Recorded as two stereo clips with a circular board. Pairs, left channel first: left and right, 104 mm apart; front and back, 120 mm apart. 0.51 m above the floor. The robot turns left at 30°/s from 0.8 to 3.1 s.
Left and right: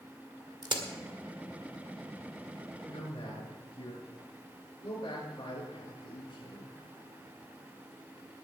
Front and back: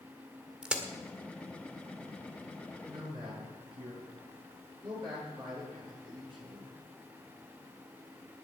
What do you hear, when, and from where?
0.6 s a crack: 100° right, 1.7 m
2.8 s a man speaking: 140° left, 6.5 m; by 6.8 s 135° left, 6.5 m